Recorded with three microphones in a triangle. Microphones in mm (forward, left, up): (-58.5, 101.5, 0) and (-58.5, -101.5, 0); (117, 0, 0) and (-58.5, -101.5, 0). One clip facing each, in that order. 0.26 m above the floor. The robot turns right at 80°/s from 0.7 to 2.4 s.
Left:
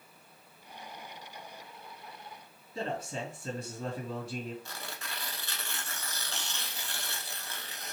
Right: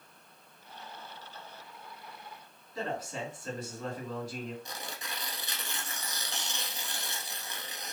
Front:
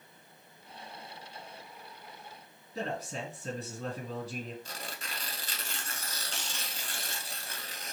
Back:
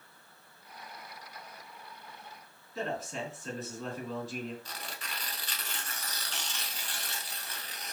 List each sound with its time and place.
2.8 s a man speaking: 45° left, 1.9 m
4.7 s tearing paper: 20° right, 0.7 m